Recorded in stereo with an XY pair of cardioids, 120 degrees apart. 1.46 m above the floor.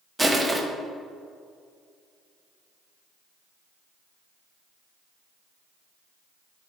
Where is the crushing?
15° right, 1.4 m.